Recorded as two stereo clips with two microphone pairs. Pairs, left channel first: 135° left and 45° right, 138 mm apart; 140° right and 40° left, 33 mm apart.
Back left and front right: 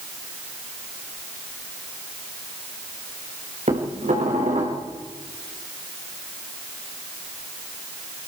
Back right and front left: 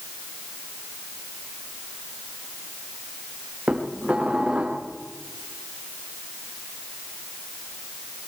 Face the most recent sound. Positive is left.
turn(degrees=-15)